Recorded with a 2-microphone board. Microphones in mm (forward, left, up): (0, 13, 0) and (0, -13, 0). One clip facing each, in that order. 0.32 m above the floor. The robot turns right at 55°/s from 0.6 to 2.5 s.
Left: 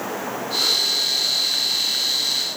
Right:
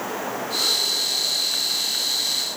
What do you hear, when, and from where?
Only background noise.